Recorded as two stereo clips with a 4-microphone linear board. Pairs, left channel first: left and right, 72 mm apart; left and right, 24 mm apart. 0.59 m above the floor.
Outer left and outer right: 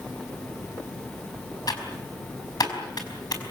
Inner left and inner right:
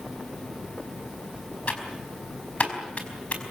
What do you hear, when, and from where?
1.7 s typing on a keyboard: 60° left (ahead or behind), 4.5 m